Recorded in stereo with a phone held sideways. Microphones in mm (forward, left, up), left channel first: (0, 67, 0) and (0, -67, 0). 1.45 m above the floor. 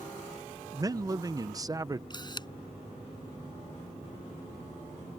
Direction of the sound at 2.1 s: 30° left (ahead or behind).